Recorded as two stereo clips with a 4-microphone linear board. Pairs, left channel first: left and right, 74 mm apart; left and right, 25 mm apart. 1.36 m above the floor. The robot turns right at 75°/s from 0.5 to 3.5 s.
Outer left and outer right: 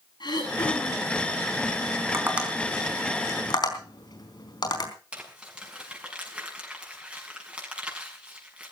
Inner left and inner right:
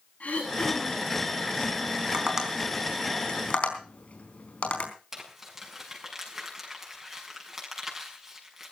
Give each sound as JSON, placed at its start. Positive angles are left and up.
{"t": 0.2, "sound": "throat clearing", "azimuth_deg": 75, "distance_m": 8.0}
{"t": 2.1, "sound": "tapping", "side_deg": -35, "distance_m": 4.0}
{"t": 5.1, "sound": "crumpling", "side_deg": -15, "distance_m": 6.5}